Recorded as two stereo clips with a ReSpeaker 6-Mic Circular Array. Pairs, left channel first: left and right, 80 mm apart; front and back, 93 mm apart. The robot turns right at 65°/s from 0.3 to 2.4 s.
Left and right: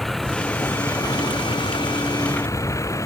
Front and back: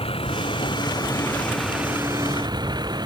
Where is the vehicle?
Straight ahead; by 3.1 s 140° left.